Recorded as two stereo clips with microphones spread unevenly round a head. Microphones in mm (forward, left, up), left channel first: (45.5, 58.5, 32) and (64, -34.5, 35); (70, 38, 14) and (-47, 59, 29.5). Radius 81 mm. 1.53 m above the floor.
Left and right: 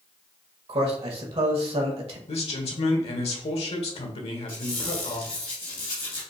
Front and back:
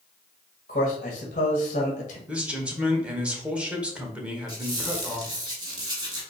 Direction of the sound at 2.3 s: 90° left.